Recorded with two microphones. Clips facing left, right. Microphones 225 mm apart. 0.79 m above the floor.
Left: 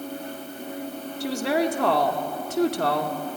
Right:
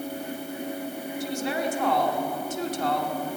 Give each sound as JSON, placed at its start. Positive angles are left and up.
{"t": 1.2, "sound": "a woman speaking", "side_deg": 70, "distance_m": 1.7}